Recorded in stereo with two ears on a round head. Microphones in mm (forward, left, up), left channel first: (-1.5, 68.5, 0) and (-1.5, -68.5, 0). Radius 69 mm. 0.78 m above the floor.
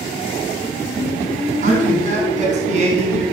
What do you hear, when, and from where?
1.6 s a man speaking: 50° right (ahead or behind), 5.5 m; by 3.2 s 45° right (ahead or behind), 7 m